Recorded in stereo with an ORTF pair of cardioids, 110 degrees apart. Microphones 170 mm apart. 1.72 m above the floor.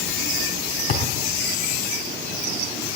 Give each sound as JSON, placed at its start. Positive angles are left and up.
{"t": 0.9, "sound": "a thud", "azimuth_deg": 65, "distance_m": 4.5}